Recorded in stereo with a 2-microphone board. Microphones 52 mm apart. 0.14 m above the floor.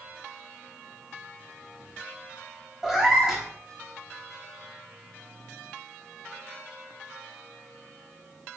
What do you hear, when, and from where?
2.8 s a cat meowing: 10° right (ahead or behind), 0.9 m